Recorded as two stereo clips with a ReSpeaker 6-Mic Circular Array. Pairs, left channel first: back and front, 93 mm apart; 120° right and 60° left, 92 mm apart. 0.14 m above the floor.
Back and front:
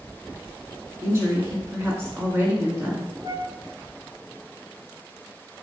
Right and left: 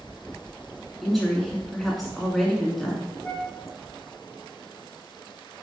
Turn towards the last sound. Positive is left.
turn(degrees=-40)